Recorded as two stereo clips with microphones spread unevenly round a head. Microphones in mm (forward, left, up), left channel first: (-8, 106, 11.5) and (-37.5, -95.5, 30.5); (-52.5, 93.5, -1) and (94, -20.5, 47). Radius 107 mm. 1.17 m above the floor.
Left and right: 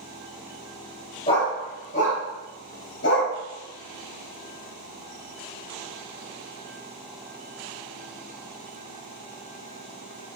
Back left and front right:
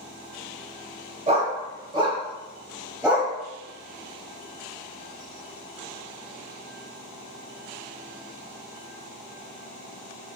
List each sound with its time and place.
1.3 s a dog barking: 15° left, 2.5 m; by 3.3 s 45° left, 3 m